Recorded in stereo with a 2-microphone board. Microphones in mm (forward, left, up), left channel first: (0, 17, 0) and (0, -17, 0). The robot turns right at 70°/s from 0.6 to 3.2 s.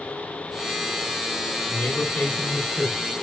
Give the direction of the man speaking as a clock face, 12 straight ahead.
9 o'clock.